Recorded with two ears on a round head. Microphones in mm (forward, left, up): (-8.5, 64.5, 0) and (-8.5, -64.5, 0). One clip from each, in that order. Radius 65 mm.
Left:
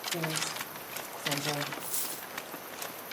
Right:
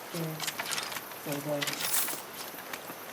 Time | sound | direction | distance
0.1 | a woman speaking | 85° left | 2 m
1.8 | a dropped coin | 10° right (ahead or behind) | 0.6 m